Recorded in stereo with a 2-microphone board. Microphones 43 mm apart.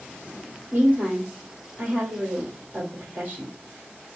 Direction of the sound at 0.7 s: 45° right (ahead or behind).